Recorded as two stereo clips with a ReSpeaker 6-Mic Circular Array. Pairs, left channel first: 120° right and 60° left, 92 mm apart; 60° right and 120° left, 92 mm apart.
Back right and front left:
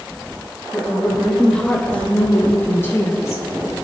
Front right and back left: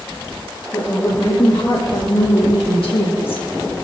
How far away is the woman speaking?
About 3.5 m.